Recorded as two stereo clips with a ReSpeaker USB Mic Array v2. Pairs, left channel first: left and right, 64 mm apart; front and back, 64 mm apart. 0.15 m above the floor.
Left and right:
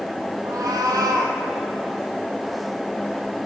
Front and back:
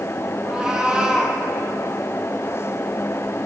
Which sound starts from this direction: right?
A cat meowing, at 0.5 s.